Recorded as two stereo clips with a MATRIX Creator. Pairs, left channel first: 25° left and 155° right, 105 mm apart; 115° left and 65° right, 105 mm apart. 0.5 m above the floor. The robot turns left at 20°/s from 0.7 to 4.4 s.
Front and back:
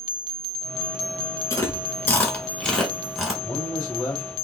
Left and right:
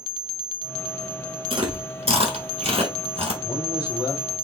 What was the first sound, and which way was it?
Chewing, 35° right.